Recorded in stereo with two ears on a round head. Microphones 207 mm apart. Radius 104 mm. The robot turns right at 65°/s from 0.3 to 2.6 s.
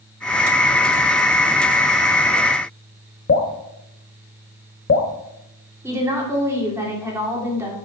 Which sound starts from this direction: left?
Dripping, at 3.3 s.